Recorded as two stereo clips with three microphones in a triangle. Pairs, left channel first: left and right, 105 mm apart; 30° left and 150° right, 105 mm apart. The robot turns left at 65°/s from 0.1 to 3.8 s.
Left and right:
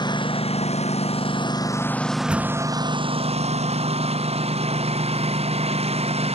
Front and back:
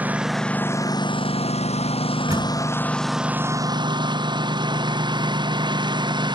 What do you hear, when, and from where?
0.0 s a lawn mower: 135° left; by 6.4 s 105° right
2.3 s a door slam: 155° right; by 2.7 s straight behind